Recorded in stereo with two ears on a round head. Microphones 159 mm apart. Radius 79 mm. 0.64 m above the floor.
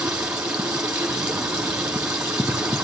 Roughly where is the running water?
Centre.